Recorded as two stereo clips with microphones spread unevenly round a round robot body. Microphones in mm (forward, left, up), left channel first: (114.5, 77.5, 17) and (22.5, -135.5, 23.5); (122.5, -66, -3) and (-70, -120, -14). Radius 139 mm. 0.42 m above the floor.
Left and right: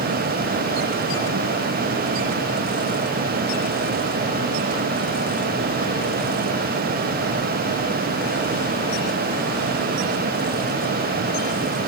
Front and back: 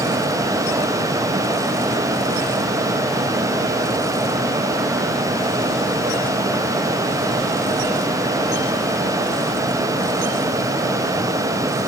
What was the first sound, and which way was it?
Only background noise.